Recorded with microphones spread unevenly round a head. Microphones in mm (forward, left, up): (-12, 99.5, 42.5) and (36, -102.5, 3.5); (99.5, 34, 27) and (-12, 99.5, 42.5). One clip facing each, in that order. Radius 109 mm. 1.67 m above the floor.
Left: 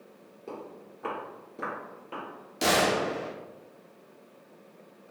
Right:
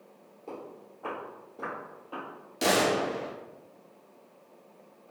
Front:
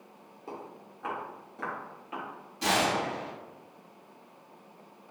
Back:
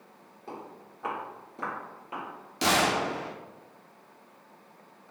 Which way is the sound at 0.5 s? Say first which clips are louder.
Left 1 dB, even; 50° left.